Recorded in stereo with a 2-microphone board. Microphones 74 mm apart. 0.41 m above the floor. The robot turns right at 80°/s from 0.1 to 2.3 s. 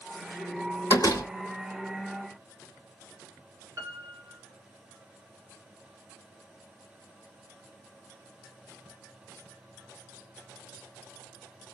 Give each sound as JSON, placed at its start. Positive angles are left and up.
{"t": 0.9, "sound": "a door slam", "side_deg": 50, "distance_m": 1.2}
{"t": 3.8, "sound": "a piano", "side_deg": -30, "distance_m": 2.0}